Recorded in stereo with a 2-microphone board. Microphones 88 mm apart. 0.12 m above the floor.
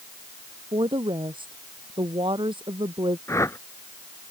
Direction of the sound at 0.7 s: 70° right (ahead or behind).